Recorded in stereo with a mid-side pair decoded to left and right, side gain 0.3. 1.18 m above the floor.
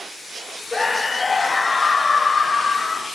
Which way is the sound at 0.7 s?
35° left.